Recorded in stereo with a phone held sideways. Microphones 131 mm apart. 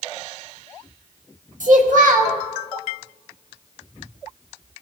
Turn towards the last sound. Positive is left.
turn(degrees=-75)  # may be behind; listen again after turning